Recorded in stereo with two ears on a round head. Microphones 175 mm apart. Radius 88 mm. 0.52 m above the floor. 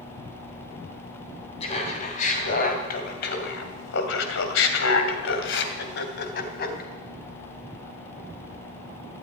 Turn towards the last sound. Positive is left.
turn(degrees=50)  # may be behind; listen again after turning